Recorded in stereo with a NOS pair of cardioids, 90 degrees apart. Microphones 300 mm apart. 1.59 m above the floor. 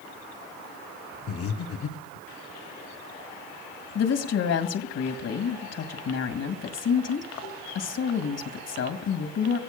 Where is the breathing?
50° left, 1.1 m.